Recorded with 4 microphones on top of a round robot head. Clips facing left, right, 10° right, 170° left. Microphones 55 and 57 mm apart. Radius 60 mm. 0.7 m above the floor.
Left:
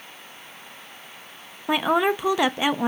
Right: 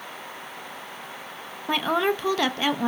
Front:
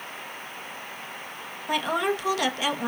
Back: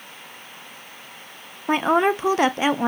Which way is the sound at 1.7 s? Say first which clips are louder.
Left 3 dB, back 7 dB; 155° left.